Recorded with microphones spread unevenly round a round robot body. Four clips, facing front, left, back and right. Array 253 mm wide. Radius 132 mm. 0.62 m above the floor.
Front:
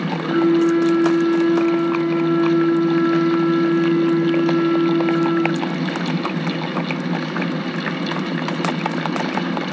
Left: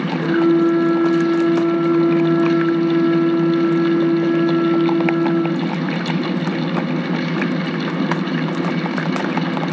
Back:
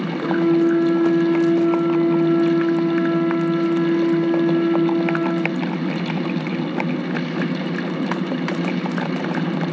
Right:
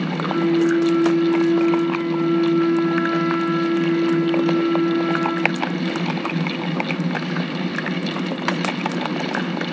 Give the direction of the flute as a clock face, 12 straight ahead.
7 o'clock.